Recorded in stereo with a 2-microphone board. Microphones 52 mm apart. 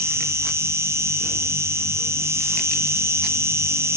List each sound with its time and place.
0.0 s an insect: 60° right (ahead or behind), 3.5 m